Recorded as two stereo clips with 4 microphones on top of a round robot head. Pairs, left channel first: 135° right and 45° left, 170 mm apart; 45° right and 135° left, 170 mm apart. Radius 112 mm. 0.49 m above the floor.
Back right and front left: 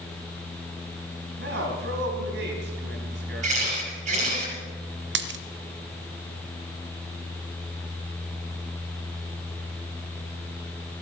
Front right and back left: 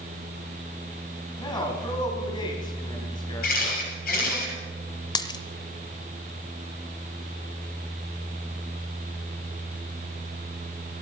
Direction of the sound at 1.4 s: 20° left.